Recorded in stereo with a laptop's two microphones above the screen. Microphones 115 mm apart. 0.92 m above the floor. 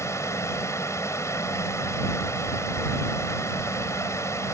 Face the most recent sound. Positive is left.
turn(degrees=25)  # may be behind; listen again after turning